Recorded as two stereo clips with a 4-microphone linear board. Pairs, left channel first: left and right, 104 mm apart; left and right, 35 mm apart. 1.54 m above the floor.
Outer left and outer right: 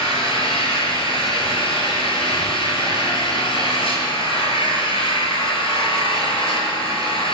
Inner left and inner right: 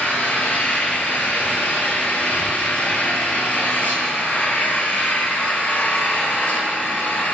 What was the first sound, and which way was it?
An engine running, 65° left (ahead or behind).